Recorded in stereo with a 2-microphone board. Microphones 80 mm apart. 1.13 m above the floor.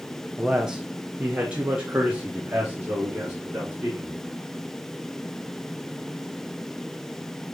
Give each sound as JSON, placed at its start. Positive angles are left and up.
{"t": 0.4, "sound": "a man speaking", "side_deg": -5, "distance_m": 1.2}